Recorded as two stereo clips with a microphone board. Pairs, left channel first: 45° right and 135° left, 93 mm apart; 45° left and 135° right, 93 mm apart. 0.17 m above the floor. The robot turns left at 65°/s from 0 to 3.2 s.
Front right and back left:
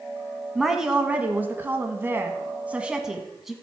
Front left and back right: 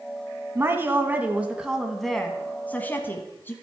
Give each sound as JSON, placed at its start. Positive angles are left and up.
{"t": 0.6, "sound": "a woman speaking", "azimuth_deg": -135, "distance_m": 1.0}